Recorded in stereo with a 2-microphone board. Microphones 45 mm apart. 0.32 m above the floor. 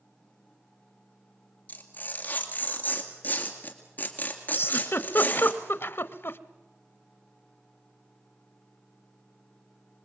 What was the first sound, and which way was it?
Tearing paper, 40° left (ahead or behind).